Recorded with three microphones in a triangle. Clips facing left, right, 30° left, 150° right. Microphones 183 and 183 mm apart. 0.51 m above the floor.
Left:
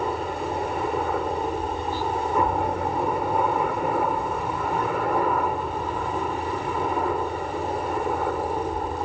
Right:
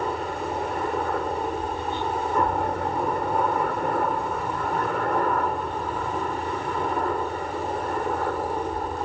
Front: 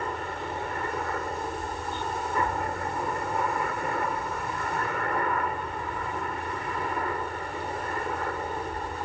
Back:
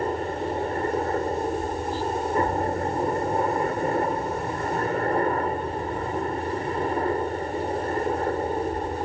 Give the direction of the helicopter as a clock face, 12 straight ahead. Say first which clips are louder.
Left 1 dB, back 7 dB; 6 o'clock.